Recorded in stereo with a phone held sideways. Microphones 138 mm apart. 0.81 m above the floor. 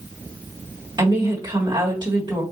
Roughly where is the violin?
No violin in this recording.